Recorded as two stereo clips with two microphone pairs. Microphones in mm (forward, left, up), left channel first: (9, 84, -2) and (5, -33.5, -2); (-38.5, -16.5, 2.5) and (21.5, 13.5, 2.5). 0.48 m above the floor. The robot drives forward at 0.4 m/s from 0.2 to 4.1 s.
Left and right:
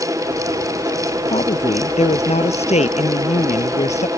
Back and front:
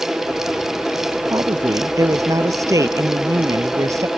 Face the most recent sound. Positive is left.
turn(degrees=70)